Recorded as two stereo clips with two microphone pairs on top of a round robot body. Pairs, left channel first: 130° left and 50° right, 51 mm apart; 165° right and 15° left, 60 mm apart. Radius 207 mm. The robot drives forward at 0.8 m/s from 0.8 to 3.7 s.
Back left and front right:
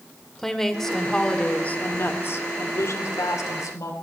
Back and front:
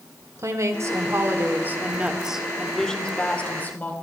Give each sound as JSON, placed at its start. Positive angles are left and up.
{"t": 0.4, "sound": "a woman speaking", "azimuth_deg": 45, "distance_m": 1.8}